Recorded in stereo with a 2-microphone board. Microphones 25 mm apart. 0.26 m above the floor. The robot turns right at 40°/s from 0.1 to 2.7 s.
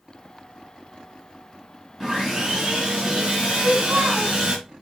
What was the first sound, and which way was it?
Sawing, 15° right (ahead or behind).